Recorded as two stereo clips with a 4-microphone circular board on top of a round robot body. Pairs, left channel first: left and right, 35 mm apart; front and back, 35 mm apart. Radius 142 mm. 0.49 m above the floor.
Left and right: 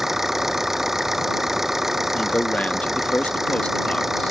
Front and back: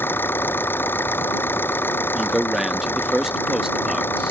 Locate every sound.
0.0 s an engine running: 5° right
2.1 s a man speaking: 105° left